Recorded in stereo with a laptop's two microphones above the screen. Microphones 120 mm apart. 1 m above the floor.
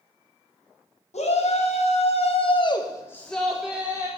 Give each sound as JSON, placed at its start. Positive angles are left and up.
{"t": 1.1, "sound": "a shout", "side_deg": 65, "distance_m": 1.9}